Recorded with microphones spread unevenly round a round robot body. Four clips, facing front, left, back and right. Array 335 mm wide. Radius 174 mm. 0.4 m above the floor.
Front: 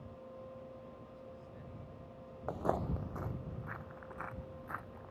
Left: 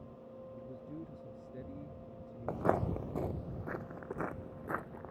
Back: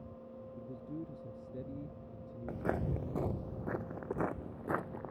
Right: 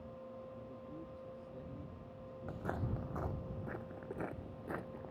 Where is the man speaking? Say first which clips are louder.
Left 3 dB, back 6 dB; 160° left.